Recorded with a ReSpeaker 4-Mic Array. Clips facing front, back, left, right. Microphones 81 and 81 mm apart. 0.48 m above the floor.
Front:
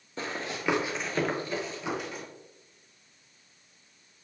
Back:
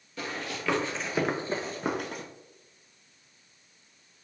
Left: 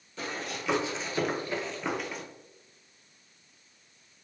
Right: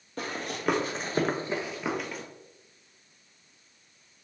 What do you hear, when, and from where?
0.2 s running footsteps: 55° right, 0.9 m; by 2.2 s 175° left, 0.8 m